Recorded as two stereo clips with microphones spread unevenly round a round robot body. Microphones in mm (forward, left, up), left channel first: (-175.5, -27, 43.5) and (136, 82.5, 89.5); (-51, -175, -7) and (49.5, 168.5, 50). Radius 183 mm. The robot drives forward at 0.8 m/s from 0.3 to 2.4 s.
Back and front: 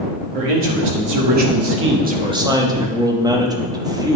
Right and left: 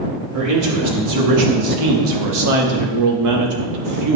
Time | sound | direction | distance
0.3 | a man speaking | 30° left | 1.9 m